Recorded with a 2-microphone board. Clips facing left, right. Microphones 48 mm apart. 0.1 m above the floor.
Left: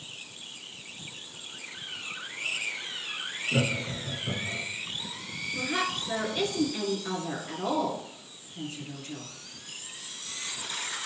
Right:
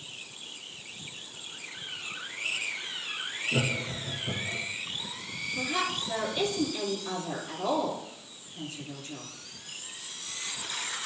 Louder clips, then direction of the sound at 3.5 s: Left 2 dB; 20° left (ahead or behind).